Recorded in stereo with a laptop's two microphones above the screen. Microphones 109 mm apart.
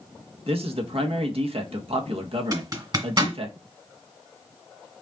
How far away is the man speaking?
About 1.1 m.